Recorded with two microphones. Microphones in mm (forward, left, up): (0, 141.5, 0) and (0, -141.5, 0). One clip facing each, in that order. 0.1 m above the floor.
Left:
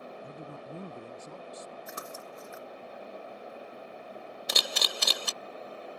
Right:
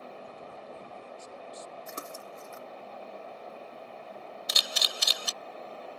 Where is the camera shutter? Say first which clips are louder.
Left 5 dB; 60° left (ahead or behind).